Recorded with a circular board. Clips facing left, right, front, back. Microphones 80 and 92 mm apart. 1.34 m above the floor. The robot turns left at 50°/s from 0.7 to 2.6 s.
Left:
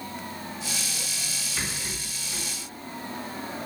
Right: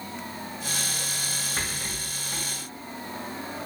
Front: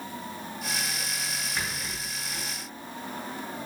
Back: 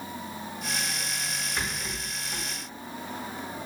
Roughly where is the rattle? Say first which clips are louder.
Left 2 dB, back 1 dB; right.